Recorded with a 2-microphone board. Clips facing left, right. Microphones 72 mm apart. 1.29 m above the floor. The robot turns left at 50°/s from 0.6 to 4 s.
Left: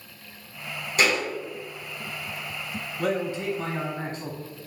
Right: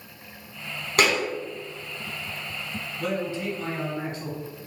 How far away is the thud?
About 1.4 m.